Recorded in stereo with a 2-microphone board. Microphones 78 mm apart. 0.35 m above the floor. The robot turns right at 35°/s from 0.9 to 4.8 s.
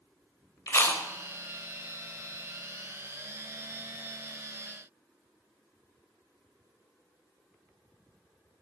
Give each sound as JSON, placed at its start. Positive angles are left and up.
{"t": 0.7, "sound": "chewing", "side_deg": 35, "distance_m": 0.8}